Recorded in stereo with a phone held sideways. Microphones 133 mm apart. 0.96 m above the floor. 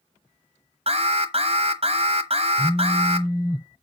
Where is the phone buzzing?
5° right (ahead or behind), 0.5 m.